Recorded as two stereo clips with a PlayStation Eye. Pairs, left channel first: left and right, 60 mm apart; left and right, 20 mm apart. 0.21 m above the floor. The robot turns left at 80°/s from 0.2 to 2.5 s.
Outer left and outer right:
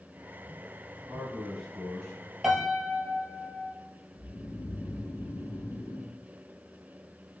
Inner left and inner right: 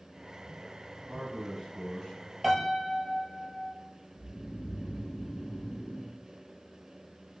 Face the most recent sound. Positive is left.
turn(degrees=60)  # may be behind; listen again after turning